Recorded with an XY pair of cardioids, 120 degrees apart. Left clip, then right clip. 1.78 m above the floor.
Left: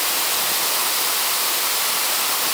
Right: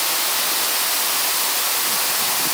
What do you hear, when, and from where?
Only background noise.